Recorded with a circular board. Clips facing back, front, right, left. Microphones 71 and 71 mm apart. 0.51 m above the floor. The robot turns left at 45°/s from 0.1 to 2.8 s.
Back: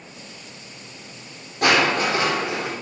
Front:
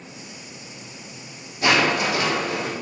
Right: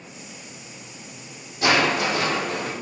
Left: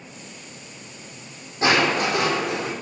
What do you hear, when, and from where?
1.6 s crushing: 150° left, 4 m; by 2.7 s 100° left, 4 m